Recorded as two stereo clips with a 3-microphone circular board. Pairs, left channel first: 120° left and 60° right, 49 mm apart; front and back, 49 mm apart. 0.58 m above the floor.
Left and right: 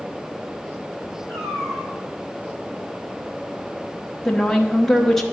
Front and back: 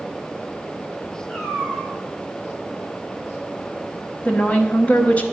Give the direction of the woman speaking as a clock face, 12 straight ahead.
11 o'clock.